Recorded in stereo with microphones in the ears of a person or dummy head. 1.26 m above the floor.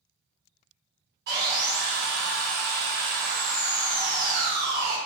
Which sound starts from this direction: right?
Sawing, at 1.3 s.